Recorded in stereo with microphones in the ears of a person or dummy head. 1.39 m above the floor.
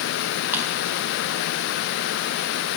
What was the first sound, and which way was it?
A drawer, 5° right (ahead or behind).